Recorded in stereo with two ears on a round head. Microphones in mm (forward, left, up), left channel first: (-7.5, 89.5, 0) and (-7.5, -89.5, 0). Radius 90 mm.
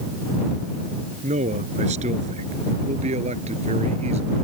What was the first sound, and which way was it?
A man speaking, 35° right (ahead or behind).